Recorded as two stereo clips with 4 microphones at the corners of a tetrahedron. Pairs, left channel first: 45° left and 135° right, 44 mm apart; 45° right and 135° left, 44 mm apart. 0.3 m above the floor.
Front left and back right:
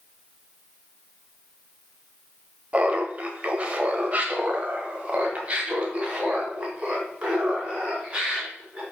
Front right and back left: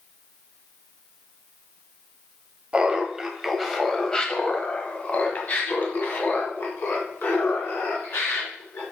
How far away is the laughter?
About 1.2 m.